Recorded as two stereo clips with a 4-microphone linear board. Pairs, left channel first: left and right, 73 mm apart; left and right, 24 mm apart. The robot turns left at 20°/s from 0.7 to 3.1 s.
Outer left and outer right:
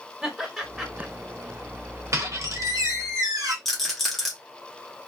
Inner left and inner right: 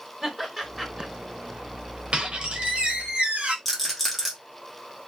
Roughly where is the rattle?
Centre.